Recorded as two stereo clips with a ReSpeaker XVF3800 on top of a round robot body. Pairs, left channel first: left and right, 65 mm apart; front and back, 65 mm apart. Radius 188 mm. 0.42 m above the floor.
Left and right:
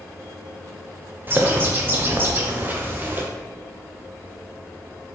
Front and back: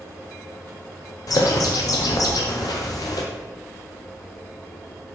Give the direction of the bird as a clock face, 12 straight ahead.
1 o'clock.